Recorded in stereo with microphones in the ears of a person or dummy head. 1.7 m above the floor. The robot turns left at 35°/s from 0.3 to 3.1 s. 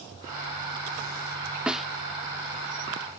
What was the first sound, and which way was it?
A snare drum, 5° right (ahead or behind).